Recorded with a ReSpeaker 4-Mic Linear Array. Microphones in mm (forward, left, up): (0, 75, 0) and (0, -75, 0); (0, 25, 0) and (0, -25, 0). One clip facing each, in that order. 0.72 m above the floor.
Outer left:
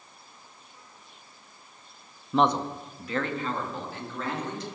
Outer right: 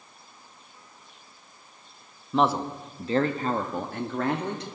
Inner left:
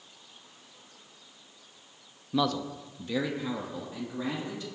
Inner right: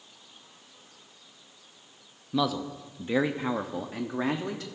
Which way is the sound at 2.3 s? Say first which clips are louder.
Even, even; centre (ahead or behind).